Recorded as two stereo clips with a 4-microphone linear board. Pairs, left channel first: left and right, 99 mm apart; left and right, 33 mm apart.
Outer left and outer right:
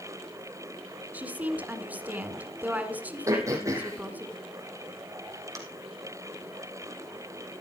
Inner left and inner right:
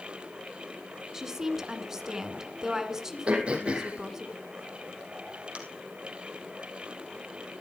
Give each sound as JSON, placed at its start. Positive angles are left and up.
{"t": 1.1, "sound": "a woman speaking", "side_deg": -15, "distance_m": 1.6}
{"t": 3.3, "sound": "throat clearing", "side_deg": -35, "distance_m": 3.0}